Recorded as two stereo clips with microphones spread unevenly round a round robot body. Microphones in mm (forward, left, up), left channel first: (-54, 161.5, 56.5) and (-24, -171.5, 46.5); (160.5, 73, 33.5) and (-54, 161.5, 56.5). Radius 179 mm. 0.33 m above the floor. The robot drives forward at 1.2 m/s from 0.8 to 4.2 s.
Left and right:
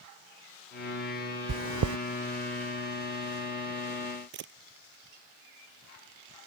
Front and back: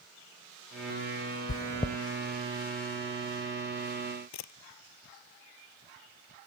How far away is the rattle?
No rattle in this recording.